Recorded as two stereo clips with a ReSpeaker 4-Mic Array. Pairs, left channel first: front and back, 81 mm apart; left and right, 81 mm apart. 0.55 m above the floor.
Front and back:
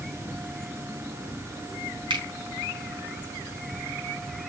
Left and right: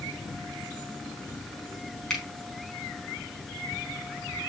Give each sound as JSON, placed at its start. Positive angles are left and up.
{"t": 2.1, "sound": "a finger snap", "azimuth_deg": 175, "distance_m": 4.5}